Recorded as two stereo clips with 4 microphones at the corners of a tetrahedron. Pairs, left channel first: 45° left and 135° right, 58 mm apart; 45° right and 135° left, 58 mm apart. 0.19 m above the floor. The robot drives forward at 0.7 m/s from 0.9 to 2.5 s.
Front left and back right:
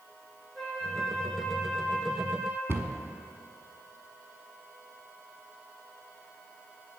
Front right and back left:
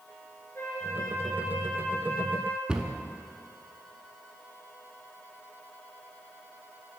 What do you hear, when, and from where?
0.6 s a flute: 45° right, 2 m; by 2.6 s 85° right, 1.6 m
2.7 s a cupboard door: 155° right, 0.9 m